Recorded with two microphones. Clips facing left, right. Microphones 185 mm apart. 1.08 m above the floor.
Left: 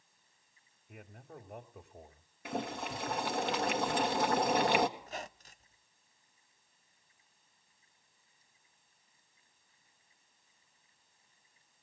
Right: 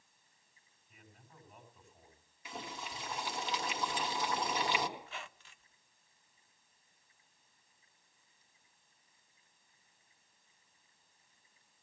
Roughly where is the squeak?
Left.